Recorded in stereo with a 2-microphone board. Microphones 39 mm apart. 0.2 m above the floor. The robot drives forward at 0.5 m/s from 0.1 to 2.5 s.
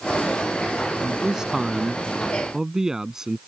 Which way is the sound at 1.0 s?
20° right (ahead or behind).